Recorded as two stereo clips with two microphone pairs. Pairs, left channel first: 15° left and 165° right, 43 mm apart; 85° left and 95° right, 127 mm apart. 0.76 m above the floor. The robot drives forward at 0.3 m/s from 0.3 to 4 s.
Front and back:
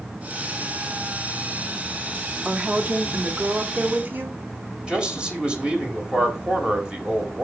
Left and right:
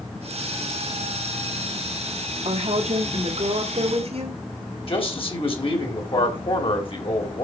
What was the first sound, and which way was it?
A woman speaking, 110° right.